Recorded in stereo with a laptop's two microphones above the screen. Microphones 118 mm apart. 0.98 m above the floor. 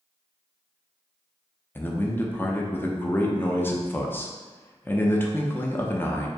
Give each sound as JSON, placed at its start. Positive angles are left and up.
{"t": 1.8, "sound": "a man speaking", "side_deg": 20, "distance_m": 0.5}